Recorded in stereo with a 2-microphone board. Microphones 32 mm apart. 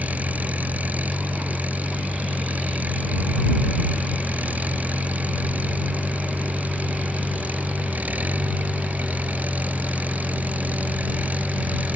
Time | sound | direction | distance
0.0 | an engine running | 55° right (ahead or behind) | ?